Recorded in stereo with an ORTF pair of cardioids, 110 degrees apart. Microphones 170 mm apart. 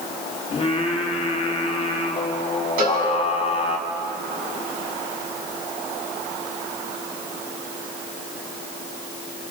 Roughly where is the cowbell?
Ahead right.